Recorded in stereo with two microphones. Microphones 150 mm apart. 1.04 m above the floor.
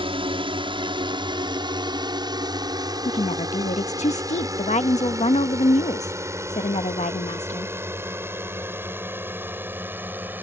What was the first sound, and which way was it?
A drone, 35° right (ahead or behind).